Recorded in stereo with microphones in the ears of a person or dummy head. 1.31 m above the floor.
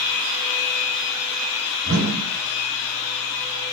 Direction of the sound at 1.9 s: 65° right (ahead or behind).